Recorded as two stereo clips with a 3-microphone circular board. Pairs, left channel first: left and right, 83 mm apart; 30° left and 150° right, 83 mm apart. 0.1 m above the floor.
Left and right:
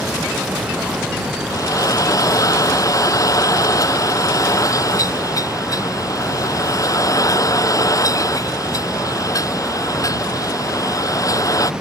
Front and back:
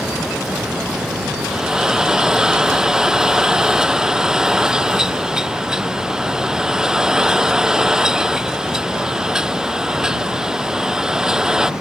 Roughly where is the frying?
Behind left.